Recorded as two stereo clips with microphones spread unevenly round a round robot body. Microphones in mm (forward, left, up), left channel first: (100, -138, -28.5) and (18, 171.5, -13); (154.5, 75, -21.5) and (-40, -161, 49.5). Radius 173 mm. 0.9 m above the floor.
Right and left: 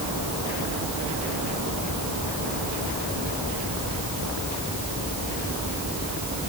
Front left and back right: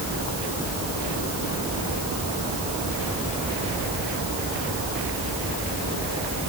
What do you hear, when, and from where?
Only background noise.